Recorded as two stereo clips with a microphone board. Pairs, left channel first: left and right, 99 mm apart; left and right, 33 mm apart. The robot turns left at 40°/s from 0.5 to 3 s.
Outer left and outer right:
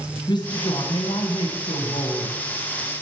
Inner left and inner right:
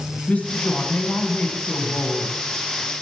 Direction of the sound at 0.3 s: 115° left.